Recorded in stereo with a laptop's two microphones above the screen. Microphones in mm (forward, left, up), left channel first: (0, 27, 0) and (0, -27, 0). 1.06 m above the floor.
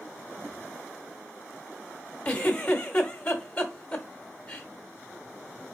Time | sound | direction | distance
2.2 | a giggle | 25° left (ahead or behind) | 1.0 m